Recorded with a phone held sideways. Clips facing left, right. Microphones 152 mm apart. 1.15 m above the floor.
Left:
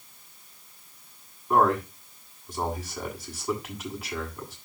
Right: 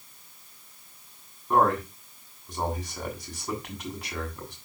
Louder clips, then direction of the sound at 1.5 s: Left 1 dB; 5° left (ahead or behind).